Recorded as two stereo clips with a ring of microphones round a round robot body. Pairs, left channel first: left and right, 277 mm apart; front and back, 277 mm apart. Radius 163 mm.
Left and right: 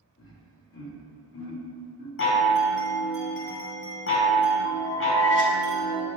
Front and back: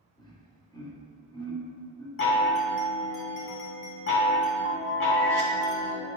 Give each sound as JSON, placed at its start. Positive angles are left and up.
{"t": 0.2, "sound": "laughter", "azimuth_deg": 70, "distance_m": 1.4}
{"t": 2.2, "sound": "a chime", "azimuth_deg": 45, "distance_m": 1.1}